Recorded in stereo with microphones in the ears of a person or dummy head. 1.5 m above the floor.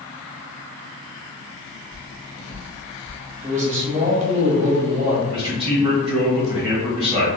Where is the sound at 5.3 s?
30° right (ahead or behind), 1.3 m.